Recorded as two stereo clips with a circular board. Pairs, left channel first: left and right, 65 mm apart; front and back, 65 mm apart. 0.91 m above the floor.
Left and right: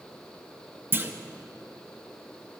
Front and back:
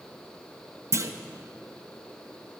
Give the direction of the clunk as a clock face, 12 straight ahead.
5 o'clock.